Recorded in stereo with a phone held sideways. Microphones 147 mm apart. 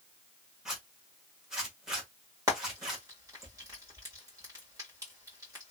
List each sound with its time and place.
0.7 s a zipper: 5° right (ahead or behind), 1.5 m
2.5 s frying: 20° right (ahead or behind), 1.8 m